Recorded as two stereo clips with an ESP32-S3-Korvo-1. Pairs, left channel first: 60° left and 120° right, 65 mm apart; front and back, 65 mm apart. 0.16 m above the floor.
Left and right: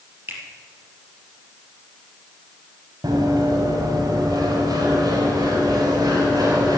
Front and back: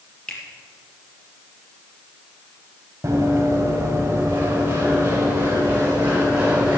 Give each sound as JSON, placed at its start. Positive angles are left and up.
{"t": 0.3, "sound": "a finger snap", "azimuth_deg": -70, "distance_m": 3.5}
{"t": 3.0, "sound": "running footsteps", "azimuth_deg": -125, "distance_m": 3.0}